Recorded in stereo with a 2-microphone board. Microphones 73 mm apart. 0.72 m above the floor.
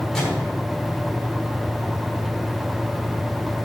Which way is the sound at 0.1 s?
5° left (ahead or behind).